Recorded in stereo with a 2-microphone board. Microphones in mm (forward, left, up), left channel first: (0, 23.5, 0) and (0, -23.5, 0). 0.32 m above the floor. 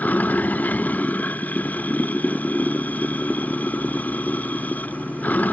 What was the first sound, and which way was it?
Running water, 35° left (ahead or behind).